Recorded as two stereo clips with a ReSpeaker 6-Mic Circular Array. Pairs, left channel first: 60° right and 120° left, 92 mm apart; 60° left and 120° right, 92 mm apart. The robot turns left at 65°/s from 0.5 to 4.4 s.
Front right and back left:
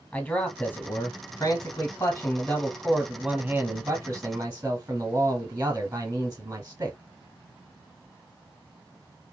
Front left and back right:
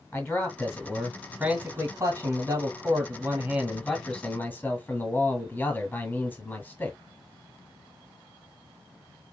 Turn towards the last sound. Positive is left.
turn(degrees=95)